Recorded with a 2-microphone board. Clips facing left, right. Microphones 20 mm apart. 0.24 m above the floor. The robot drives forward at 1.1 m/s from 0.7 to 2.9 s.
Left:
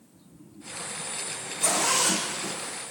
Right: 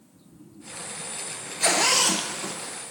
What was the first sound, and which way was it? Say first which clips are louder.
A zipper: right 4 dB; 85° right.